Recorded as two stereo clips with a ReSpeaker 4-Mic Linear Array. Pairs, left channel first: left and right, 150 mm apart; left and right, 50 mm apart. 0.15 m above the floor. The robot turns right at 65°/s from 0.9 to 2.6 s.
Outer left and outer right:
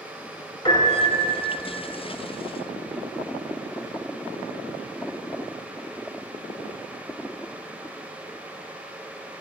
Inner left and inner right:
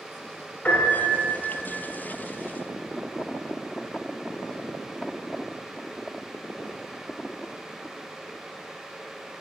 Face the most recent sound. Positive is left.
turn(degrees=-140)